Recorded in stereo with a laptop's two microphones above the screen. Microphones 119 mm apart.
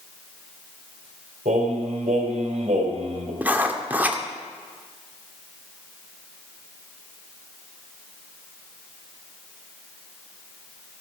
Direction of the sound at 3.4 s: 15° right (ahead or behind).